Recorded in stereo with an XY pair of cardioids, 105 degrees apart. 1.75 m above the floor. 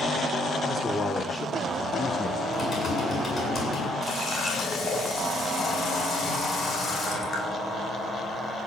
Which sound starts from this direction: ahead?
A man speaking, at 0.7 s.